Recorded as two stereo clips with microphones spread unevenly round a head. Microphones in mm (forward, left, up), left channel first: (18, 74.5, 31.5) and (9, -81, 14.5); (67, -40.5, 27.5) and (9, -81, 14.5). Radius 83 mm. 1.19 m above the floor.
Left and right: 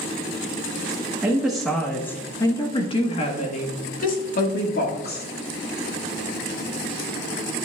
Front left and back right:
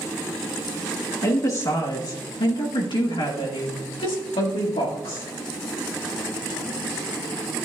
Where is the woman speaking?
10° right, 1.2 m; by 5.3 s 60° left, 2.0 m.